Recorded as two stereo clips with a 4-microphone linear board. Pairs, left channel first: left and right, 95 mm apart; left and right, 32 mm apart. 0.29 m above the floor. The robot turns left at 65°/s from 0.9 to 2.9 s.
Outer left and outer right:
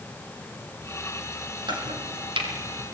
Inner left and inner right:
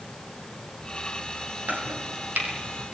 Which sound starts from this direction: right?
Chopping, at 1.7 s.